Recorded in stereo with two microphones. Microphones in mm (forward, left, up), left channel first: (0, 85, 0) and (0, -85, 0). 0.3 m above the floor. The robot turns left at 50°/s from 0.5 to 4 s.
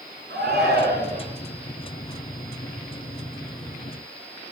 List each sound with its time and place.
0.3 s a shout: 75° right, 4 m; by 1.2 s 115° right, 4 m